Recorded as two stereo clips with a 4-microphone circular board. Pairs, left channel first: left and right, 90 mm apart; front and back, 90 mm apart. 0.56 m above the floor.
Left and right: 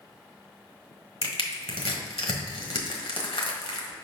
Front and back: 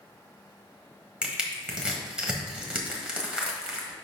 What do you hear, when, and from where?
1.2 s crushing: 100° left, 1.2 m